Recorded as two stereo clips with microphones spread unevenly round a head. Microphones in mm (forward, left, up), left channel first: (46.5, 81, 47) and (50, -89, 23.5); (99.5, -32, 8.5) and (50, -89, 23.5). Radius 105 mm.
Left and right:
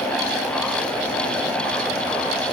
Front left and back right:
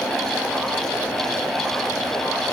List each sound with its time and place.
Only background noise.